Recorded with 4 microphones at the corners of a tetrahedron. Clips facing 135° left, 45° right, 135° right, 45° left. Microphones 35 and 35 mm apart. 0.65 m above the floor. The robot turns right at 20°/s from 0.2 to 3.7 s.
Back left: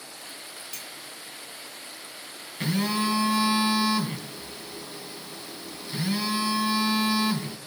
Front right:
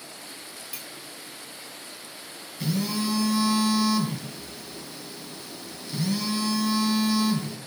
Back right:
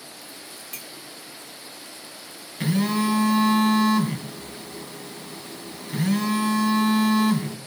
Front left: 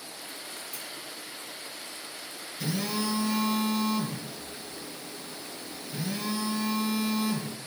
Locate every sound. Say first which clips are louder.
0.7 s a clink: front right 1 dB, back right 1 dB; 120° right, 1.5 m; by 0.9 s 115° right, 1.5 m
2.6 s a phone buzzing: back left 2 dB, back right 8 dB; 175° right, 2 m; by 7.6 s 155° right, 2 m